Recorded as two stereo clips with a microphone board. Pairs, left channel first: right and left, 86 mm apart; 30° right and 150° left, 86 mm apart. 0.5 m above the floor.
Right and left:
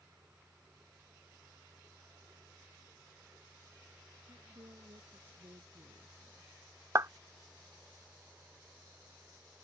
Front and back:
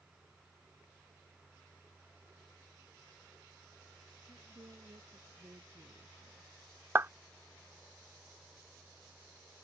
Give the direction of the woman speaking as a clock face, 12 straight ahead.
8 o'clock.